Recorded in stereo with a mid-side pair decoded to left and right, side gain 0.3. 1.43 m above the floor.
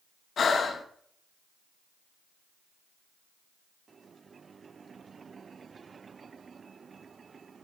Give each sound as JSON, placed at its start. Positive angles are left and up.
{"t": 0.4, "sound": "breathing", "azimuth_deg": 70, "distance_m": 1.0}